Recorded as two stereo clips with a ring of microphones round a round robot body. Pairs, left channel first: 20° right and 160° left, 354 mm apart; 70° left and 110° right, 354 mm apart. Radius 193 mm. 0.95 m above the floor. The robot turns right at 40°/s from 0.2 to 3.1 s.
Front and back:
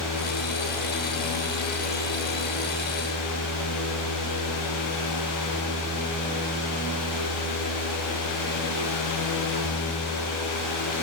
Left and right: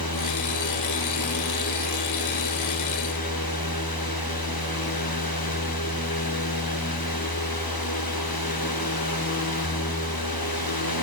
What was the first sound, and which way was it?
Only background noise.